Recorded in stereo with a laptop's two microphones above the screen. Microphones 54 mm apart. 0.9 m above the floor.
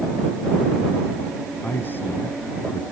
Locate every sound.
1.6 s a man speaking: 40° left (ahead or behind)